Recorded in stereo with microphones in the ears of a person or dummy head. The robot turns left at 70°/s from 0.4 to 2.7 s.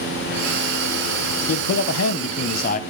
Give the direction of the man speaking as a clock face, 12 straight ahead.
7 o'clock.